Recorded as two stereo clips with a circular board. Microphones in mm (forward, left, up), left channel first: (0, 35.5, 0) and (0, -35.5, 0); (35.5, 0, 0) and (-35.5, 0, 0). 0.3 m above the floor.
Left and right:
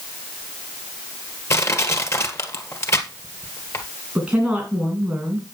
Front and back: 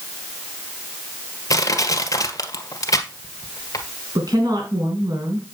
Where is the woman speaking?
160° right, 3 m.